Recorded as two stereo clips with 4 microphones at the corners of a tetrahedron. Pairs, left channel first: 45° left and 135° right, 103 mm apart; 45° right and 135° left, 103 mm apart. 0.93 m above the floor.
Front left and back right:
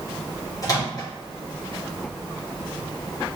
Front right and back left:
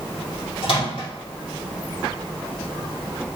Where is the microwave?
10° right, 1.7 m.